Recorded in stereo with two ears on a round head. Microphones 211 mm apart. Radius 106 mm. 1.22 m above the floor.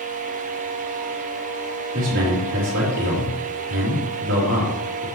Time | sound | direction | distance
1.9 | a man speaking | 50° right (ahead or behind) | 3 m